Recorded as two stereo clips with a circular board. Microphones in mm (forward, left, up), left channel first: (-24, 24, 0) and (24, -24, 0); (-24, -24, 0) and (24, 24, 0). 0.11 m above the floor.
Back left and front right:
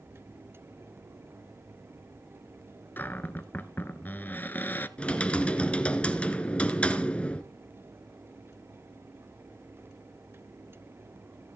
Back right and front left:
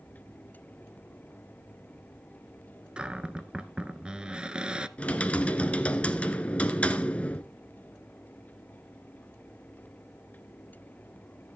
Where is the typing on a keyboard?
Straight behind, 1.0 m.